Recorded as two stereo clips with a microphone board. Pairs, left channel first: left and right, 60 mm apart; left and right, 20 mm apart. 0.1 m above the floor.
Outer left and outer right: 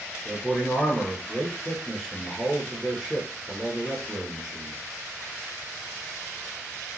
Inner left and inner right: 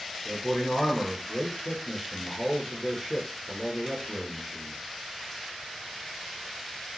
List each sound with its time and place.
0.2 s a man speaking: centre (ahead or behind), 1.2 m